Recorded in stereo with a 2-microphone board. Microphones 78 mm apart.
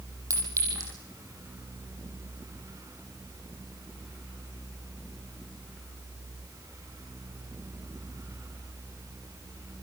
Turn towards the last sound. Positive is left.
turn(degrees=-45)  # may be behind; listen again after turning